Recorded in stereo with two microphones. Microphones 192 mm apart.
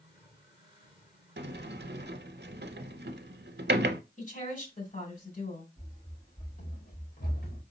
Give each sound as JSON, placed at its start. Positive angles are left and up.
{"t": 1.4, "sound": "a sliding door", "side_deg": -70, "distance_m": 0.6}
{"t": 4.2, "sound": "a woman speaking", "side_deg": 50, "distance_m": 2.0}
{"t": 5.8, "sound": "running footsteps", "side_deg": 40, "distance_m": 3.5}